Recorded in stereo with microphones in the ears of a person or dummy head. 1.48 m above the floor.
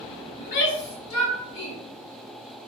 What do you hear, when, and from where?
0.4 s a shout: 45° left (ahead or behind), 0.8 m; by 1.8 s 60° left (ahead or behind), 1.0 m